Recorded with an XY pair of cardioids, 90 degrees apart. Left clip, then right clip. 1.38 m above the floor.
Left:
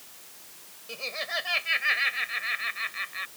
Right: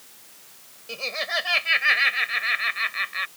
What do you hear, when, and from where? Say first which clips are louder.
0.9 s laughter: right 5 dB; 40° right; by 3.3 s 55° right